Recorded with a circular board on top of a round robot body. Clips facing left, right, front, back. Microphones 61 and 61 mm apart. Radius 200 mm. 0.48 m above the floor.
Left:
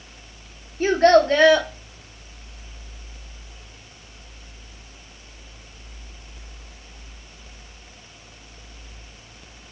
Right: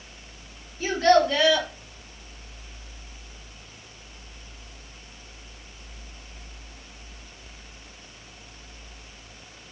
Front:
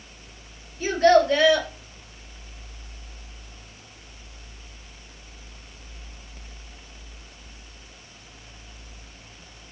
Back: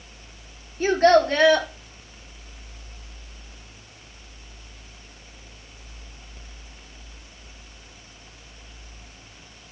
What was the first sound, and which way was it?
A child speaking, 135° left.